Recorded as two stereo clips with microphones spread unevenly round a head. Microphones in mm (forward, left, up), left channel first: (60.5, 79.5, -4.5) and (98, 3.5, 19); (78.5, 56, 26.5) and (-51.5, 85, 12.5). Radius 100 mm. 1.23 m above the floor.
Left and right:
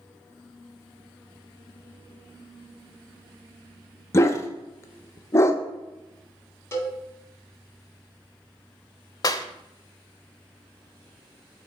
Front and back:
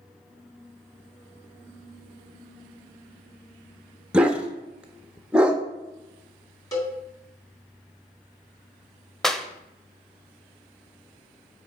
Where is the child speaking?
I don't hear a child speaking.